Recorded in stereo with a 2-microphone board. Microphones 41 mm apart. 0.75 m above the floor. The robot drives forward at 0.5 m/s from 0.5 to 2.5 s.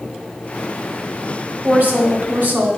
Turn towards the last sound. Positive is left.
turn(degrees=-60)  # may be behind; listen again after turning